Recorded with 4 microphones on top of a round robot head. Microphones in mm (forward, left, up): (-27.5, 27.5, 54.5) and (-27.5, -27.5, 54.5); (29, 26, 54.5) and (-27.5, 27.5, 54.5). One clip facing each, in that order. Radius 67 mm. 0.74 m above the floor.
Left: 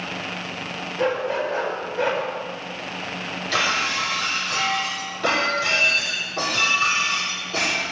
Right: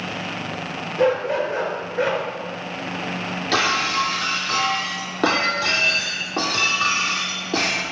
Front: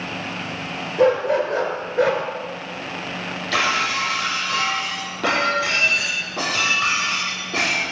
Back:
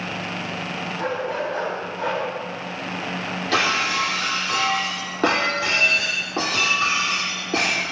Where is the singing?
No singing in this recording.